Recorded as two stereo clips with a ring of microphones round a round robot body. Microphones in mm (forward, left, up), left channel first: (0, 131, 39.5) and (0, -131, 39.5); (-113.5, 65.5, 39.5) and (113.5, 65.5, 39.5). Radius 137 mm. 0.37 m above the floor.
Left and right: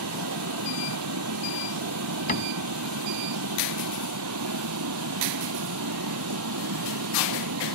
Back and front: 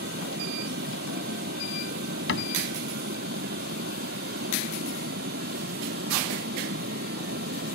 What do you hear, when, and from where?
0.0 s running water: 55° right
2.3 s a cupboard door: 150° left